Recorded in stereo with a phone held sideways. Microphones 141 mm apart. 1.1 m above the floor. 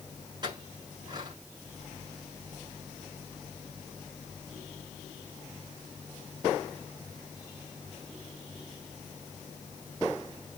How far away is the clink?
About 8.5 m.